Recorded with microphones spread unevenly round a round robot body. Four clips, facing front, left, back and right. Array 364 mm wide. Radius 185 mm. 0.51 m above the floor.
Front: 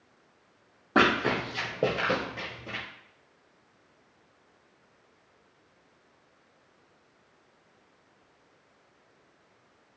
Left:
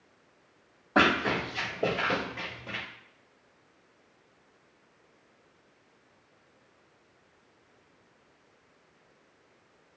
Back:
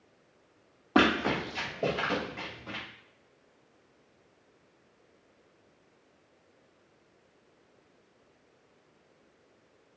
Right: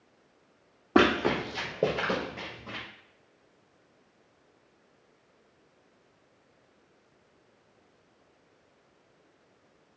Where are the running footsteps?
80° right, 1.0 m; by 2.8 s 25° right, 2.0 m.